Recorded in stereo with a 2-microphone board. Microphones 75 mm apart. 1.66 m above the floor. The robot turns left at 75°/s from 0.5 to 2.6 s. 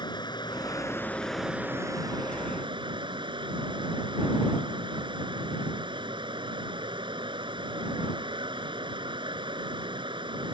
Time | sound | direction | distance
0.0 | running water | 65° left | ?